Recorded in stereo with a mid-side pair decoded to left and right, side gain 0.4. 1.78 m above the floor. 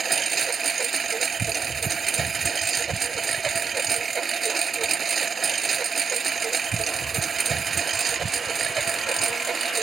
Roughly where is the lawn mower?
Ahead right.